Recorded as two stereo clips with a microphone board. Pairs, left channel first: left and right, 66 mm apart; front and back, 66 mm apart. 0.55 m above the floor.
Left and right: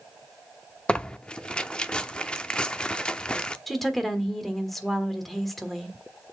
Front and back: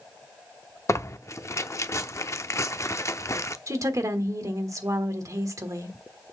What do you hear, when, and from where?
0.9 s tearing paper: 20° left, 0.6 m
3.7 s a woman speaking: 175° left, 1.4 m